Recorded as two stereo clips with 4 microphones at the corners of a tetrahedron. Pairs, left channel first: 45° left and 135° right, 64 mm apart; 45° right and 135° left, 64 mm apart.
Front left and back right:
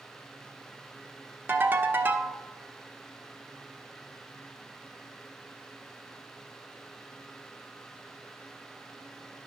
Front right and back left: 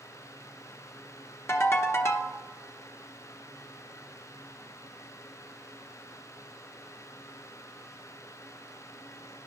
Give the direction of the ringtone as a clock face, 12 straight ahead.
3 o'clock.